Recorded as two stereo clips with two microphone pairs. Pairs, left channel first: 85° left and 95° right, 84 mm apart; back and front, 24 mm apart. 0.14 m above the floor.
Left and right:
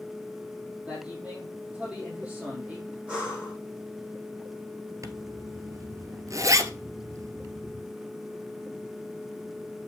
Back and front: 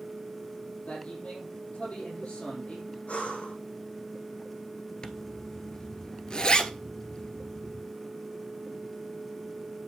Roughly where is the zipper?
Behind right.